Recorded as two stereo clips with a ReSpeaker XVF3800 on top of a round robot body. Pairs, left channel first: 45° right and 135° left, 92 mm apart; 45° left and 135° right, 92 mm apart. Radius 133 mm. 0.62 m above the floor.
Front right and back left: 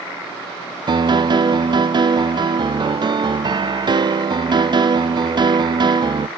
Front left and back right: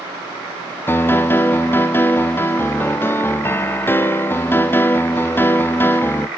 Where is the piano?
110° left, 0.7 m.